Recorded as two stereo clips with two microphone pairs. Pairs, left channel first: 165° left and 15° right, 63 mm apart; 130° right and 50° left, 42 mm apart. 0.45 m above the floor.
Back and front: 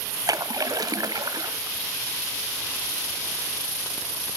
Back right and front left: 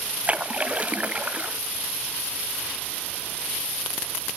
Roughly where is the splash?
Ahead.